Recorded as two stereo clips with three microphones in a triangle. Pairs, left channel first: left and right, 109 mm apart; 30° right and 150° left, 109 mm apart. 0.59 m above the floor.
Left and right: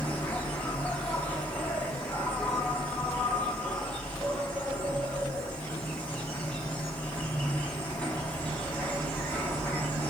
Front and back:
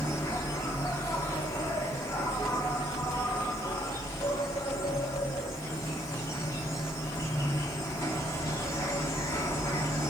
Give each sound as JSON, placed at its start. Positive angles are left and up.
{"t": 0.0, "sound": "an insect", "azimuth_deg": 15, "distance_m": 0.8}